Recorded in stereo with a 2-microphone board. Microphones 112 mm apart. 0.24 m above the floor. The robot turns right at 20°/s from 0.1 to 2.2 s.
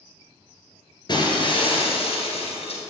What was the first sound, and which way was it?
Breaking glass, 40° left (ahead or behind).